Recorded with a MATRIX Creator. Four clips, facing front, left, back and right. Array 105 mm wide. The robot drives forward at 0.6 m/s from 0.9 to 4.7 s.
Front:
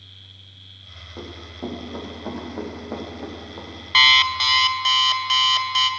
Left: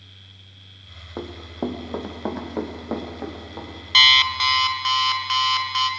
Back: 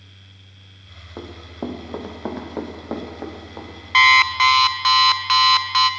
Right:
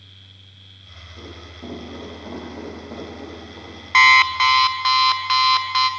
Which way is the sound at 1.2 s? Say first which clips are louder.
Left 9 dB, back 3 dB; 110° left.